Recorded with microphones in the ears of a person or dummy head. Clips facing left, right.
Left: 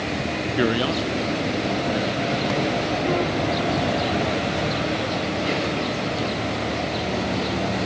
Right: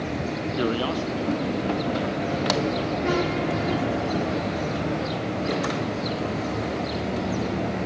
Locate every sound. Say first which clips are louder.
0.6 s a man speaking: left 4 dB; 20° left (ahead or behind), 0.5 m; by 5.1 s 25° left (ahead or behind), 6.5 m